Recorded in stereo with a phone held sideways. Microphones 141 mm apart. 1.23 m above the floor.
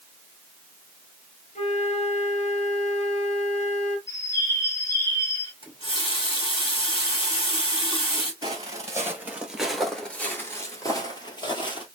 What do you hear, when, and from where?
1.6 s a flute: 50° left (ahead or behind), 1.0 m
4.1 s a bird: 20° left (ahead or behind), 1.7 m
5.6 s a running tap: 40° left (ahead or behind), 2 m
8.4 s footsteps: 30° right (ahead or behind), 1.4 m; by 11.8 s 35° left (ahead or behind), 1.7 m